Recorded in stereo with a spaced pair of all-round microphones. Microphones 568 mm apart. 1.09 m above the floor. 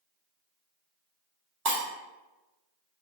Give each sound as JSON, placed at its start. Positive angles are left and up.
{"t": 1.6, "sound": "breaking glass", "side_deg": -40, "distance_m": 0.8}